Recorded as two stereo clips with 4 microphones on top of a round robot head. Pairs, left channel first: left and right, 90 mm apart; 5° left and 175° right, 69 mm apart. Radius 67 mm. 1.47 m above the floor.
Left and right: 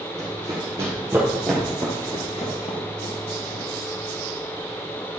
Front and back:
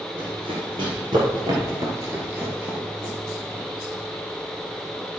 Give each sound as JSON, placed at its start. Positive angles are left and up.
{"t": 0.2, "sound": "running footsteps", "azimuth_deg": -145, "distance_m": 3.5}